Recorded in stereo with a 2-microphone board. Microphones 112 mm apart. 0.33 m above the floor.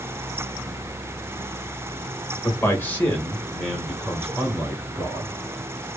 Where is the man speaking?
25° left (ahead or behind), 1.3 m; by 5.4 s 25° right (ahead or behind), 2.0 m.